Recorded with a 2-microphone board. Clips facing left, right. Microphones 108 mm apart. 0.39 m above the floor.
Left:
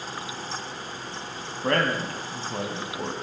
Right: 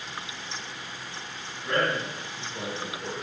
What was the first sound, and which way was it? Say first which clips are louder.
A man speaking: left 3 dB; 70° left (ahead or behind).